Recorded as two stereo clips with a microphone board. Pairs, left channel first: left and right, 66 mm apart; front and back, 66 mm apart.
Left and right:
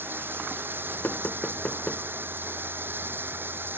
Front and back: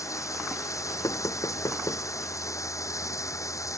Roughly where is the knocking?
Ahead.